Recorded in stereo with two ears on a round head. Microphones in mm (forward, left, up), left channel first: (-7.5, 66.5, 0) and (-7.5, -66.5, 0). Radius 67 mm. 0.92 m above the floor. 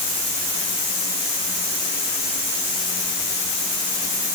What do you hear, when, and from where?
Only background noise.